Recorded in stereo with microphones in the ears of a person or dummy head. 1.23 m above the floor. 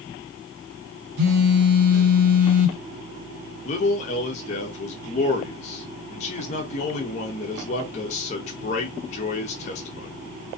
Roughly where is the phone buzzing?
Right.